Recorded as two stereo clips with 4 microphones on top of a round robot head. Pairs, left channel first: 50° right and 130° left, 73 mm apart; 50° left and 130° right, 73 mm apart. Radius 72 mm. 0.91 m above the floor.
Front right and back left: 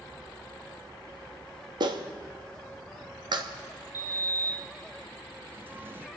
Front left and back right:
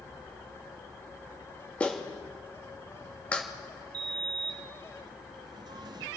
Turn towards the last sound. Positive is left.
turn(degrees=-165)